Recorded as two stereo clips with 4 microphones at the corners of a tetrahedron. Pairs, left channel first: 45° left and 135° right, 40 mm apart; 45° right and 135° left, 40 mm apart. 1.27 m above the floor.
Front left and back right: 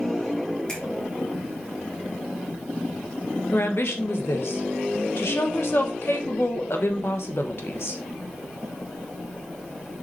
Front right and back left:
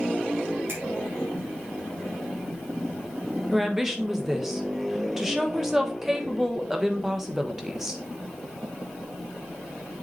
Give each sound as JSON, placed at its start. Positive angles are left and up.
{"t": 0.7, "sound": "a finger snap", "azimuth_deg": 115, "distance_m": 2.5}
{"t": 3.5, "sound": "a woman speaking", "azimuth_deg": 55, "distance_m": 1.1}